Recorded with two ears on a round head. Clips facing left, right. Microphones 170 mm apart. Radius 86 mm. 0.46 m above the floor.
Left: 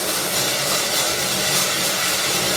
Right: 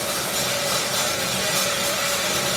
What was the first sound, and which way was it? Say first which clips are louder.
Running water: left 2 dB; 50° left (ahead or behind).